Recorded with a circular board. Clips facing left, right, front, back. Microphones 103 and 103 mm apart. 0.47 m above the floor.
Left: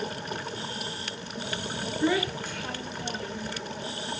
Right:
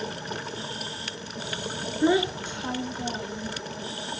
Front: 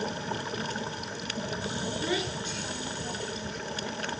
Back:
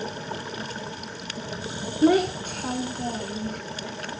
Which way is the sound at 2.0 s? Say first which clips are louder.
Right 4 dB, back 16 dB; 155° right.